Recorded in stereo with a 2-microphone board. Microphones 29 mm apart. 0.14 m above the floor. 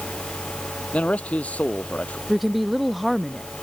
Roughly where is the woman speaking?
Centre.